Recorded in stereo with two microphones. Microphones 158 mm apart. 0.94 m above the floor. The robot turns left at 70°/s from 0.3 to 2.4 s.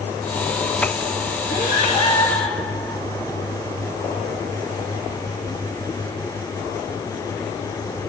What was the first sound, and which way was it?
Breathing, 75° left.